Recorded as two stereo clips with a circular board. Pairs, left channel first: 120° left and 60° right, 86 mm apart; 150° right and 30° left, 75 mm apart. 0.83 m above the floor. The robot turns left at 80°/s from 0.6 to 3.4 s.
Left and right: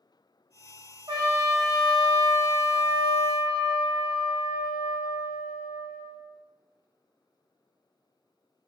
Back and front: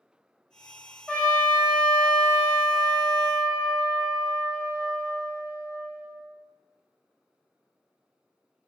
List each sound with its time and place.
1.1 s a trumpet: 70° right, 0.9 m; by 6.2 s 105° left, 0.9 m